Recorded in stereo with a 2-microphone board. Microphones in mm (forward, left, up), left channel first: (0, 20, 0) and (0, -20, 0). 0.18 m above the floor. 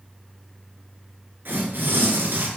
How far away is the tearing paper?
About 3 m.